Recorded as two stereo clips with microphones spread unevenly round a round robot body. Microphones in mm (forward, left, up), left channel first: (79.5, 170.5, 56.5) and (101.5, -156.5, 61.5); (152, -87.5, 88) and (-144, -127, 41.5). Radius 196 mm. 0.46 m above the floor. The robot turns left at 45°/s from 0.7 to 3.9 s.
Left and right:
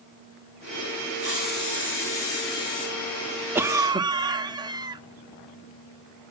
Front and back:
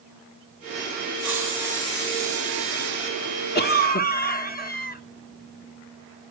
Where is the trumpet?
I don't hear a trumpet.